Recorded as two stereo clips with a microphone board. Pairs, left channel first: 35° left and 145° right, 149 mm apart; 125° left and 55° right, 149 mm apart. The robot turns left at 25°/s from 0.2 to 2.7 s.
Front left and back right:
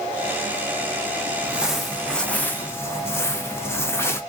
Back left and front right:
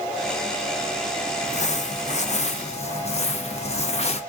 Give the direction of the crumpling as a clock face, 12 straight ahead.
8 o'clock.